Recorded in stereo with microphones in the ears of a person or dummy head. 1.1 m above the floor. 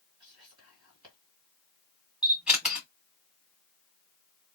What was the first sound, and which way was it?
Whispering, 30° right (ahead or behind).